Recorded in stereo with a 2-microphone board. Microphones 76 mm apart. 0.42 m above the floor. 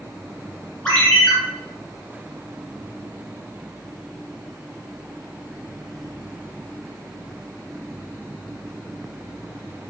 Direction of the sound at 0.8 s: 15° left (ahead or behind).